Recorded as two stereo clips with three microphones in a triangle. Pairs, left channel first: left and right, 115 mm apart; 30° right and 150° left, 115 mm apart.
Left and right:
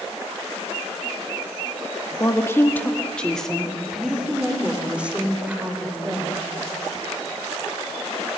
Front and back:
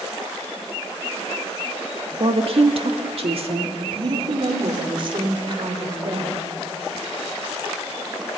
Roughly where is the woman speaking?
Behind left.